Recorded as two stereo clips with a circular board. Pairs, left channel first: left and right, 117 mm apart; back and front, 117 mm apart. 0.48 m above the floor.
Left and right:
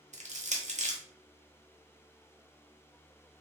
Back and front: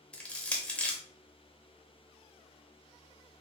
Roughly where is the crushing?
Right.